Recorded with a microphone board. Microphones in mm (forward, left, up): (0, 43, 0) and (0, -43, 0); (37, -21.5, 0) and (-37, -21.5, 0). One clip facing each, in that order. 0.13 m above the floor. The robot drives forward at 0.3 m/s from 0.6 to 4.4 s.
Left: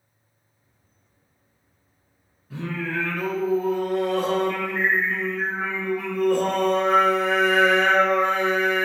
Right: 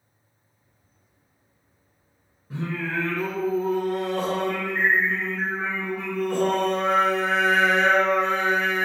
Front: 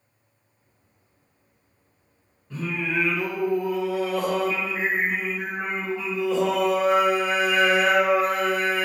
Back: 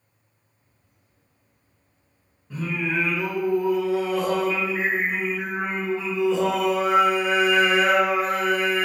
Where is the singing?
105° right, 1.7 m; by 8.8 s 130° right, 1.8 m.